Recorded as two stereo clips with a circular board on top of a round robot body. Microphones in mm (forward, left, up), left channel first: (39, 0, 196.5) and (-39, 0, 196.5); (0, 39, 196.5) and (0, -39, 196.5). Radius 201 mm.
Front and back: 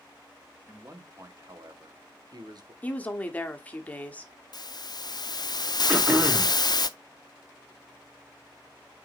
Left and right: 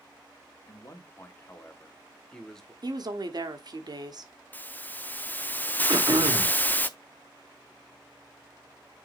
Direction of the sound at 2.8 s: 70° right.